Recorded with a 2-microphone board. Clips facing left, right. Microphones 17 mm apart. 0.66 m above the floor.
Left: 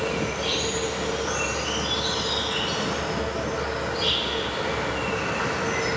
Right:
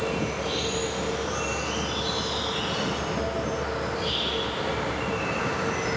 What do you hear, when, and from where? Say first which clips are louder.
0.0 s an insect: left 2 dB; 50° left (ahead or behind), 1.7 m